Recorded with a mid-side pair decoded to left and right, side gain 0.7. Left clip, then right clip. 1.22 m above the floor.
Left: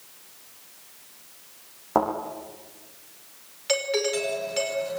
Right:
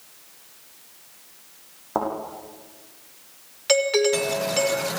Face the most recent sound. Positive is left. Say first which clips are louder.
# right 5 dB
turn(degrees=-25)